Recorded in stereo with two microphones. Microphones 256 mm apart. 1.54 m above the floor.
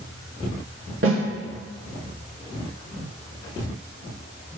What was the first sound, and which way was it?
A snare drum, 55° right (ahead or behind).